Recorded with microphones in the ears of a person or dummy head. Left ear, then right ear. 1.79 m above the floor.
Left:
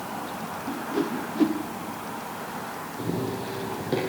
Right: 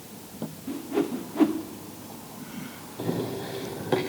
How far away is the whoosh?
About 1.1 m.